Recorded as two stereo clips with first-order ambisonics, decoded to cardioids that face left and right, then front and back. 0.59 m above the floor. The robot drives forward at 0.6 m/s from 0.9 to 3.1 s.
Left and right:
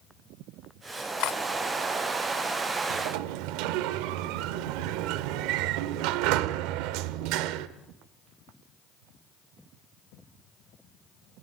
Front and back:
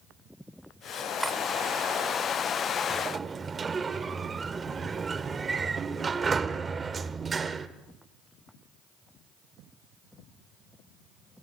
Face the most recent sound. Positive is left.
turn(degrees=-110)